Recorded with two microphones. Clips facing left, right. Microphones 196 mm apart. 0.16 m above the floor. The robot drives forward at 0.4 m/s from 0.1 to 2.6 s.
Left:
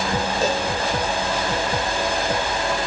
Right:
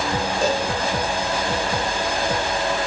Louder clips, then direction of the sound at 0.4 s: Right 2 dB; 5° left (ahead or behind).